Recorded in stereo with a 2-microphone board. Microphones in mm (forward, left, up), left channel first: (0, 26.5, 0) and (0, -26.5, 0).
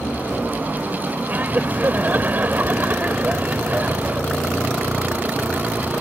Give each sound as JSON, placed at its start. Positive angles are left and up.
{"t": 1.3, "sound": "laughter", "side_deg": -35}